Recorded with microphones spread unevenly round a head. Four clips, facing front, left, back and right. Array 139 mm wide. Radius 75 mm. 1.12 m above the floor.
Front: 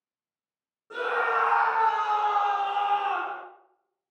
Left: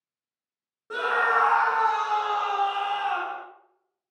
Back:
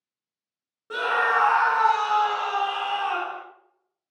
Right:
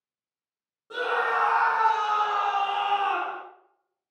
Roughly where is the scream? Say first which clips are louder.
Left 2 dB, back 3 dB; behind left.